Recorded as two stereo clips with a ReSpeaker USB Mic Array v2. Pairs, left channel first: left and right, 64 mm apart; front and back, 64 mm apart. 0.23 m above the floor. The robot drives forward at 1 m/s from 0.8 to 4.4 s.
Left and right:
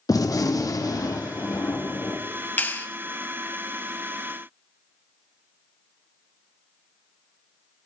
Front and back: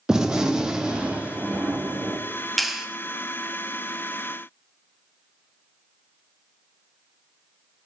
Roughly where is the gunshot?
Left.